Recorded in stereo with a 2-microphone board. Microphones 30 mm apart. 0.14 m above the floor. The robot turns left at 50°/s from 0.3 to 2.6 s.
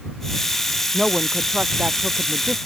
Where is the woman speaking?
15° right; by 2.6 s 95° right.